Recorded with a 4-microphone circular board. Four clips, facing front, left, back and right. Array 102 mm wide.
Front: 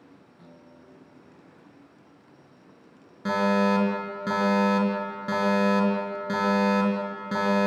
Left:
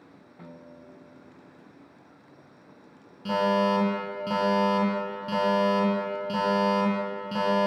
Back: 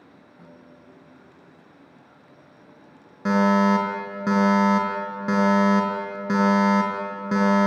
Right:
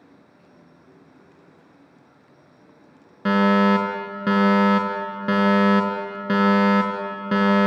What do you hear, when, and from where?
0.4 s a guitar: 110° left, 4 m
3.2 s a fire alarm: 110° right, 4.5 m